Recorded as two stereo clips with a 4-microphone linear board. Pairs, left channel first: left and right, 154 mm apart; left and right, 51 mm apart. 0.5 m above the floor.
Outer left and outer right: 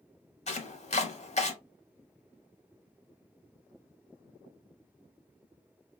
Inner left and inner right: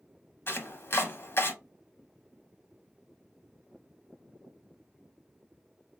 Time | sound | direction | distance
0.5 | chopping | 45° left (ahead or behind) | 0.6 m